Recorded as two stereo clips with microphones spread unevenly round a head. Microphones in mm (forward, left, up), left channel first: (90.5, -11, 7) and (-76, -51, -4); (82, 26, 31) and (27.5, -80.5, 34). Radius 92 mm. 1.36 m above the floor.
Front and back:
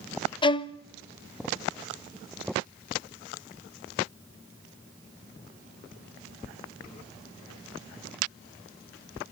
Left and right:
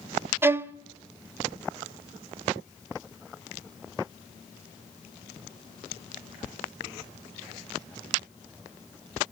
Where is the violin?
45° right, 1.0 m.